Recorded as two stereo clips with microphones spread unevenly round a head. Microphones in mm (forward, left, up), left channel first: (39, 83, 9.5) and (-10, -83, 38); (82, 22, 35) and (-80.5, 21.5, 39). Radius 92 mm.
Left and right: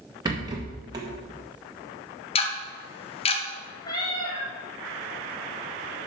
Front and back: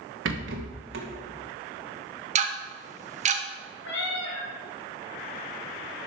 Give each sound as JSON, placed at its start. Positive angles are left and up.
{"t": 0.2, "sound": "a rattle", "azimuth_deg": -170, "distance_m": 1.7}
{"t": 2.4, "sound": "ticking", "azimuth_deg": 135, "distance_m": 1.2}
{"t": 3.8, "sound": "a cat meowing", "azimuth_deg": 5, "distance_m": 3.5}